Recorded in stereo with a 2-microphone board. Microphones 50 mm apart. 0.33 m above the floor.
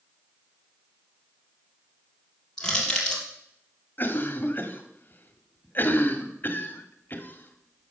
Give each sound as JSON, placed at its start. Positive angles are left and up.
{"t": 2.6, "sound": "crushing", "side_deg": 15, "distance_m": 3.5}
{"t": 4.0, "sound": "a cough", "side_deg": 45, "distance_m": 1.5}